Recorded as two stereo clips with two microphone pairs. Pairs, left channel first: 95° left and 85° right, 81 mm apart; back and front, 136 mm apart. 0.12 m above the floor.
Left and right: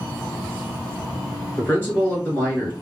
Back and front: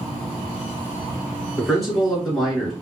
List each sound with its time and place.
1.6 s a man speaking: 90° left, 1.5 m